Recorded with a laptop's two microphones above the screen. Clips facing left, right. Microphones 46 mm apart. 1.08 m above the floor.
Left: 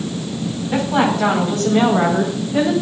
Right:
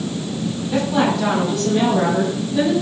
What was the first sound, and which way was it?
A woman speaking, 35° left (ahead or behind).